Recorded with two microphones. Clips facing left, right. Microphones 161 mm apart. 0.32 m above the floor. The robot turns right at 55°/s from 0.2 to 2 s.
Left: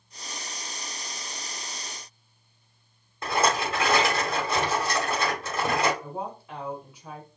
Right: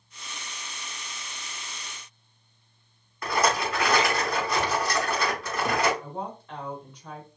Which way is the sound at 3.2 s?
25° left (ahead or behind).